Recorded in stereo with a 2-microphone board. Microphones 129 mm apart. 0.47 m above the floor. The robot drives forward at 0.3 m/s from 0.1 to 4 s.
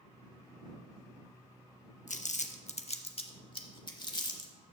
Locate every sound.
2.1 s crumpling: 80° left, 0.5 m; by 4.5 s 35° left (ahead or behind), 0.8 m